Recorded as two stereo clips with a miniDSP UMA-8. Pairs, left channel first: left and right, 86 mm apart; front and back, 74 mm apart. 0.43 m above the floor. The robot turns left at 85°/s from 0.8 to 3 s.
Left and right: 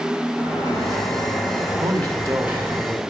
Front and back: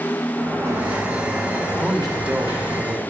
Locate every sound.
0.4 s a sliding door: 125° left, 2.5 m; by 2.8 s 45° right, 2.5 m
1.8 s a man speaking: 75° right, 1.2 m; by 3.1 s straight behind, 1.2 m